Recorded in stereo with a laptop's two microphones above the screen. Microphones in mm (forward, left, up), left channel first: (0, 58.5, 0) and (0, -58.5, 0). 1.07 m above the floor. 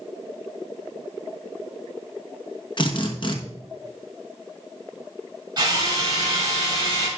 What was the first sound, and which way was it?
A drill, 45° left (ahead or behind).